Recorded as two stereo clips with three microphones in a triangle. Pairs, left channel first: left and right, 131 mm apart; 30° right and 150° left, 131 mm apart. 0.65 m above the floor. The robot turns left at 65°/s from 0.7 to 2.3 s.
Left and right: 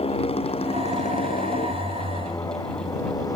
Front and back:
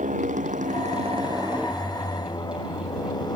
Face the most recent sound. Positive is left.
turn(degrees=30)